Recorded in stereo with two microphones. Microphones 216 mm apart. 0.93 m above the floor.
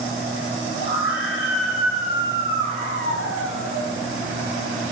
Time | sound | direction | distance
0.7 | a scream | 65° left (ahead or behind) | 9 m